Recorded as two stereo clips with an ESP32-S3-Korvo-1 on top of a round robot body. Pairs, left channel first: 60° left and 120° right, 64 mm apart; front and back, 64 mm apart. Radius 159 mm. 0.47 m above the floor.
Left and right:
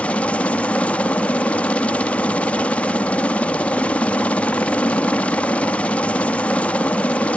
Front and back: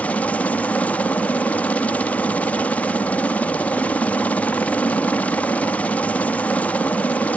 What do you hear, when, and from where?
0.0 s a helicopter: 25° left